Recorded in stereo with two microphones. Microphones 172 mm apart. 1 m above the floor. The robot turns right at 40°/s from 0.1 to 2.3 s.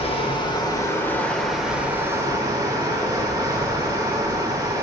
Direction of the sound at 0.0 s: 125° left.